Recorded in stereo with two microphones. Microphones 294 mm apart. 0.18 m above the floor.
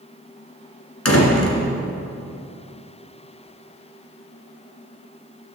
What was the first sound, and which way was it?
A door slam, 50° left (ahead or behind).